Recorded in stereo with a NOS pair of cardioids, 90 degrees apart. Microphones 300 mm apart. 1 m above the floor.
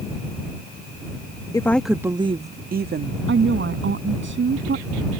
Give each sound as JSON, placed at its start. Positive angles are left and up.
{"t": 1.5, "sound": "a woman speaking", "azimuth_deg": 10}
{"t": 3.3, "sound": "a woman speaking", "azimuth_deg": -40}